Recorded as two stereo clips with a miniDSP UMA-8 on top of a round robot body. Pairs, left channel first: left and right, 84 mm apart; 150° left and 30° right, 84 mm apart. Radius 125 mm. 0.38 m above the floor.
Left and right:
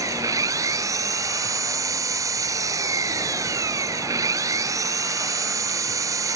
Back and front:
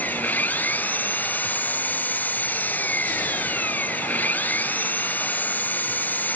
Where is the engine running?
140° right.